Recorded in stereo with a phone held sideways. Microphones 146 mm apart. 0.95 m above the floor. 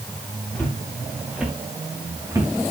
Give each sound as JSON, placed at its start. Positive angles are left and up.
{"t": 0.6, "sound": "footsteps", "side_deg": 5, "distance_m": 6.0}